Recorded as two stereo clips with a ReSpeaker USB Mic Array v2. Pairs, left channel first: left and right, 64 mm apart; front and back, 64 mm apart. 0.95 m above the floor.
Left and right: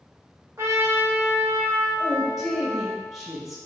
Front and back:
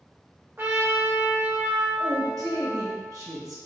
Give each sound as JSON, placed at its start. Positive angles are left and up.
{"t": 0.6, "sound": "a trumpet", "azimuth_deg": -130, "distance_m": 1.1}
{"t": 2.0, "sound": "a woman speaking", "azimuth_deg": -175, "distance_m": 1.5}